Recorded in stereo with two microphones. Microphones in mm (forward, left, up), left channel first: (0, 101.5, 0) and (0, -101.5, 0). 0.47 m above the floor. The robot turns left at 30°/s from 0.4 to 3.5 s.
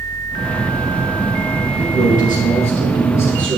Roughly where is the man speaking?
Ahead left.